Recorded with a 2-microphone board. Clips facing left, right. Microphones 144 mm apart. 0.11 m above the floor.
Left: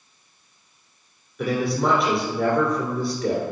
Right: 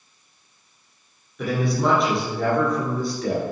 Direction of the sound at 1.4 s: Centre (ahead or behind).